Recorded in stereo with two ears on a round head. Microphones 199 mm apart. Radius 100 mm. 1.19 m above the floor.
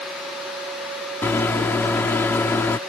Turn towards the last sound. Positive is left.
turn(degrees=10)  # may be behind; listen again after turning